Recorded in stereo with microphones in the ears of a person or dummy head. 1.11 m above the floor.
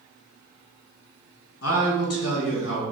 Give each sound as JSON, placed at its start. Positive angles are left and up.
{"t": 1.6, "sound": "a man speaking", "side_deg": 70, "distance_m": 1.3}